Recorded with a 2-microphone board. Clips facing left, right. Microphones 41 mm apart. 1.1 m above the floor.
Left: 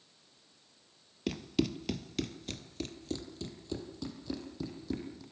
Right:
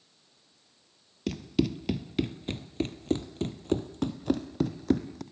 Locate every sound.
1.3 s running footsteps: 5° left (ahead or behind), 1.1 m; by 5.2 s 60° right (ahead or behind), 2 m